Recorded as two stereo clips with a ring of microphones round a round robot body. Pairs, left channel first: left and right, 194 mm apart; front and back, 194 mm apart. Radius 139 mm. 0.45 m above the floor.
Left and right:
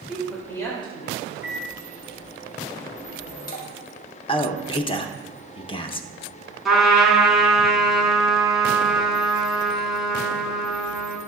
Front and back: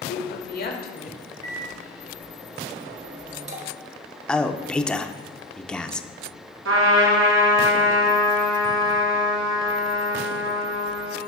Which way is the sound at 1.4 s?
130° left.